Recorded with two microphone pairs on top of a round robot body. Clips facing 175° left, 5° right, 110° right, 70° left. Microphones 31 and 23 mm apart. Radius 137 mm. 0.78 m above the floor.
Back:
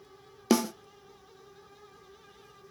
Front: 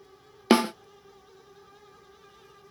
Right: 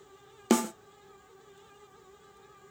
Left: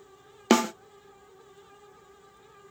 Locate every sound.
0.5 s a snare drum: 10° left, 0.6 m